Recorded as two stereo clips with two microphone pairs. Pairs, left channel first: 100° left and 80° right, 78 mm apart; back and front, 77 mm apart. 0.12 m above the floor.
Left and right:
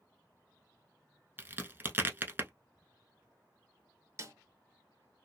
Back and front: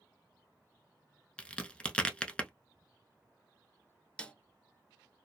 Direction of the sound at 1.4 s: 115° right.